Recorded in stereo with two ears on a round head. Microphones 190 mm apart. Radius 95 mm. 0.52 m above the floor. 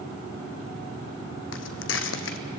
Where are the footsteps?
70° left (ahead or behind), 1.4 m.